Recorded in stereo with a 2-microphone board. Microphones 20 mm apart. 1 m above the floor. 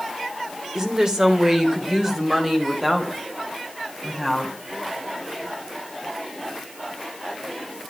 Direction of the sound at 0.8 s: 35° right (ahead or behind).